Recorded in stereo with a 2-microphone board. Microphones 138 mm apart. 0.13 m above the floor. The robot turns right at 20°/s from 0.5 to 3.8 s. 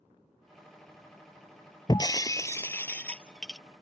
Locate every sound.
1.9 s breaking glass: 145° left; by 3.6 s straight behind